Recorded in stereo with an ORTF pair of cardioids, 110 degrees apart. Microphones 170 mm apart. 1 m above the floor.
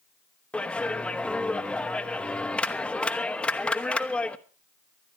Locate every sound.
0.5 s a clap: 5° left, 1.2 m